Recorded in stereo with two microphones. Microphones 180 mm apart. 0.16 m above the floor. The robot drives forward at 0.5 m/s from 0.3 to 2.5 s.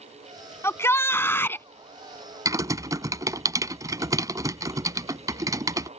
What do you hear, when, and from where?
0.6 s a shout: 15° left (ahead or behind); by 1.7 s 10° left (ahead or behind)
2.5 s typing on a keyboard: 20° right (ahead or behind)